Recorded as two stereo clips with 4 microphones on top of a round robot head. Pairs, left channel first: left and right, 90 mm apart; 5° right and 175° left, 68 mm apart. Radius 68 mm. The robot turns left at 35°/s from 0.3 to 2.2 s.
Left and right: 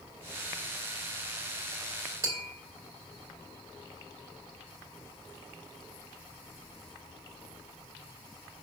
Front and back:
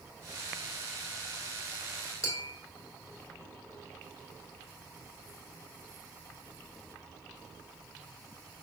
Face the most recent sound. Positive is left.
turn(degrees=-35)